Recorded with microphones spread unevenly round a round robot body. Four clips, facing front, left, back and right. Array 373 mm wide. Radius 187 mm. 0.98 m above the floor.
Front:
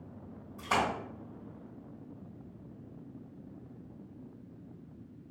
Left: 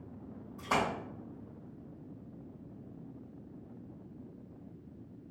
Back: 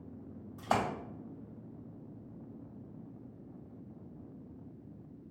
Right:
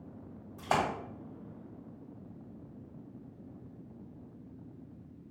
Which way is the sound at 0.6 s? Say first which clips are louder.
Right 2 dB, front 1 dB; 160° right.